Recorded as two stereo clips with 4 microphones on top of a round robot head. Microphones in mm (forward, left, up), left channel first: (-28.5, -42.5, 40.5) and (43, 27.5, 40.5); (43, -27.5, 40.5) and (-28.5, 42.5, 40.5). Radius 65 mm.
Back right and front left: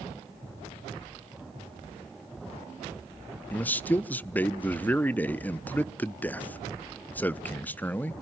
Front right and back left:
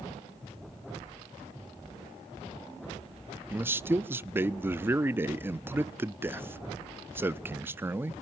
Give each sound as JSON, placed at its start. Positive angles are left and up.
{"t": 3.5, "sound": "a man speaking", "azimuth_deg": 175, "distance_m": 0.6}